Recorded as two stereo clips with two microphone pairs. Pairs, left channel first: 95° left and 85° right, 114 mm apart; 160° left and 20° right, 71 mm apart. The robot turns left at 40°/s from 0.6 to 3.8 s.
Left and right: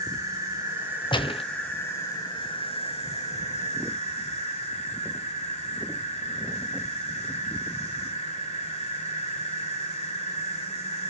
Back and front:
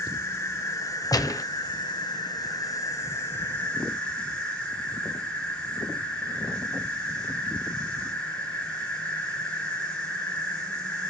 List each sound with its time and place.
0.0 s an insect: 145° right, 3.5 m; by 11.1 s 85° left, 3.5 m
1.1 s a gunshot: 140° left, 0.5 m; by 1.4 s 125° left, 0.5 m